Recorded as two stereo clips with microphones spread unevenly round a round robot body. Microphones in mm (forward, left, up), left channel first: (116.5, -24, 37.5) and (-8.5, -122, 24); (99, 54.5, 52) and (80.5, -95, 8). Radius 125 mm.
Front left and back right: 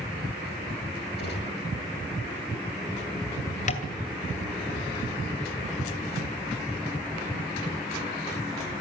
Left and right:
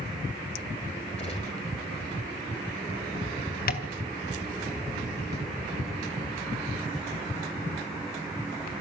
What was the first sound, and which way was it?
A gunshot, 35° left.